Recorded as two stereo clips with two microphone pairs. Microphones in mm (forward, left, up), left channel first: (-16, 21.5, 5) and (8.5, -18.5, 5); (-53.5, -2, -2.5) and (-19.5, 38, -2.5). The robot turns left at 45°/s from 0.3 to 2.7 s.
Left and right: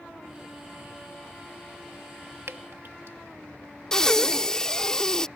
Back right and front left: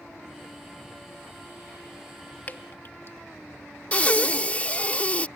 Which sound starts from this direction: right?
Dripping, at 2.5 s.